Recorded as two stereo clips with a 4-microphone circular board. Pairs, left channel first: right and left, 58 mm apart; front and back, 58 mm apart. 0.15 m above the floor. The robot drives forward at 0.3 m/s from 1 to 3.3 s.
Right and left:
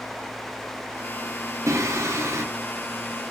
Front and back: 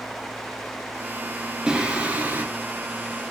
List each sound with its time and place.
1.7 s singing: 105° left, 0.6 m; by 2.4 s 125° left, 0.7 m